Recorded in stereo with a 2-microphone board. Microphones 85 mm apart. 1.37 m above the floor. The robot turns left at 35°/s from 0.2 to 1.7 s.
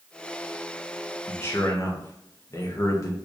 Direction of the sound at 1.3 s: 20° left (ahead or behind).